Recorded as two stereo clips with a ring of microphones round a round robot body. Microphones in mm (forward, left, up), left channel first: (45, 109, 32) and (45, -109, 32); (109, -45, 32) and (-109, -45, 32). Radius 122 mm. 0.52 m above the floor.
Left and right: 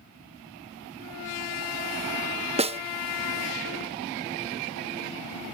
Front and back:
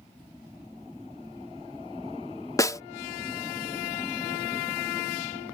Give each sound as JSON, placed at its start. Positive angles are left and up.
{"t": 2.6, "sound": "a snare drum", "azimuth_deg": -60}